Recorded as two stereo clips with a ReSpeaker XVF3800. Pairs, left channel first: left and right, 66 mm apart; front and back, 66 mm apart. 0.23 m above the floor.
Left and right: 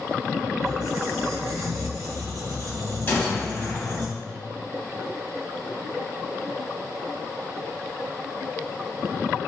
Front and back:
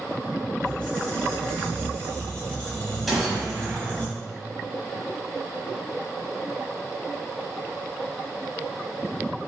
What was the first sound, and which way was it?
A squeak, 70° right.